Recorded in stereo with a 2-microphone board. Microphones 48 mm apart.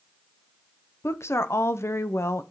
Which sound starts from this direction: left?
A woman speaking, at 1.0 s.